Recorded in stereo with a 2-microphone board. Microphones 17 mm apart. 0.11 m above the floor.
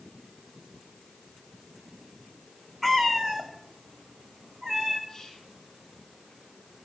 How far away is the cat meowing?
About 1.1 m.